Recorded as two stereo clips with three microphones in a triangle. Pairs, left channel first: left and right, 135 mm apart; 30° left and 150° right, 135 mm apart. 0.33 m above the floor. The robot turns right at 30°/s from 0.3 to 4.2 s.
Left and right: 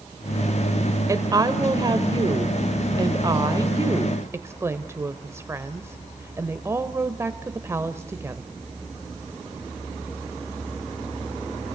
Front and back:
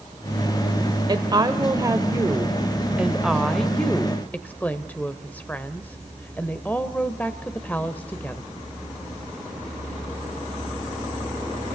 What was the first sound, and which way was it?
A woman speaking, 130° right.